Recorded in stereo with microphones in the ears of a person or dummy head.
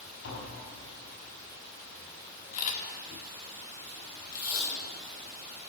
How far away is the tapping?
About 3.5 m.